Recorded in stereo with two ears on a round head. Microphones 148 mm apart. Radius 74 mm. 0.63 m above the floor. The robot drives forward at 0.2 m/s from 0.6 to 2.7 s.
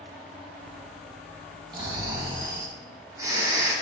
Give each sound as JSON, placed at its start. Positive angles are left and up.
{"t": 1.7, "sound": "snoring", "side_deg": -30, "distance_m": 0.7}